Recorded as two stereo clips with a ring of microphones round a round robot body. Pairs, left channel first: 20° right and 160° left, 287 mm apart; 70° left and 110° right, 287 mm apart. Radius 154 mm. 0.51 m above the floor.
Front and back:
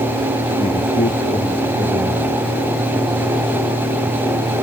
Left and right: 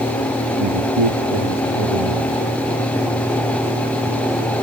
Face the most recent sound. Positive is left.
turn(degrees=-95)